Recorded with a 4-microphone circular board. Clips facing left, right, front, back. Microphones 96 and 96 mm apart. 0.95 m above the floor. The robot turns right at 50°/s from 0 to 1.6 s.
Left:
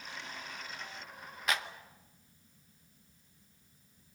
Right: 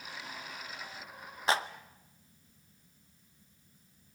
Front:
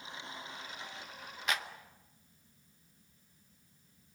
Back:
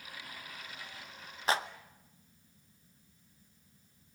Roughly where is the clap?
Behind right.